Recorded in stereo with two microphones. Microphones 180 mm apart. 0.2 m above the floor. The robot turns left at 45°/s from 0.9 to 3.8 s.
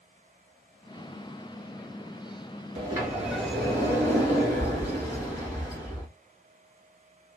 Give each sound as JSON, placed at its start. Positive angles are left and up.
{"t": 2.8, "sound": "a sliding door", "azimuth_deg": -150, "distance_m": 1.7}